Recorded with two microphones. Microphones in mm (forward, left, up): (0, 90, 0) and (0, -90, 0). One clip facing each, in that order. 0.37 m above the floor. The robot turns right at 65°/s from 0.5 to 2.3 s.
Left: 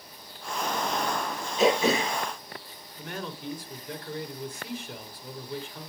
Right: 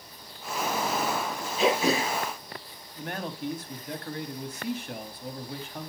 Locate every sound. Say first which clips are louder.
1.6 s throat clearing: left 2 dB; 135° left, 6 m; by 2.2 s 175° left, 6 m
3.0 s a man speaking: right 3 dB; 60° right (ahead or behind), 2 m